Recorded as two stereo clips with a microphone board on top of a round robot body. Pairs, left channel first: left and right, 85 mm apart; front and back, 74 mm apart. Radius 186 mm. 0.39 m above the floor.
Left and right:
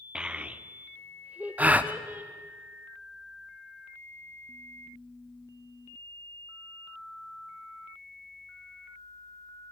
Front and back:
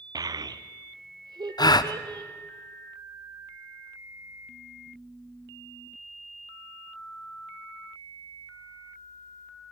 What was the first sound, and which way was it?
A child speaking, 170° right.